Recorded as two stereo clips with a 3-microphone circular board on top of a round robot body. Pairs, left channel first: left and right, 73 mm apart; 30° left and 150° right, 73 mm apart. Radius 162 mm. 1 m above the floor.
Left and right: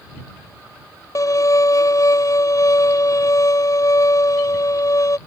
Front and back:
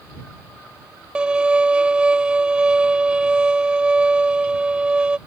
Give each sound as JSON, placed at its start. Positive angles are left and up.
{"t": 1.1, "sound": "a violin", "azimuth_deg": 130}